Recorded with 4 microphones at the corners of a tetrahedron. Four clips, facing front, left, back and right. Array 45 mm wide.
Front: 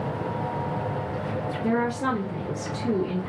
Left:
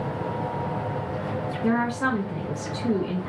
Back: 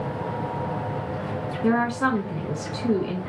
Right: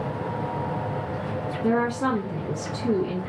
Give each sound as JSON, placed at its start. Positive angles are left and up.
{"t": 1.6, "sound": "a woman speaking", "azimuth_deg": 150, "distance_m": 1.1}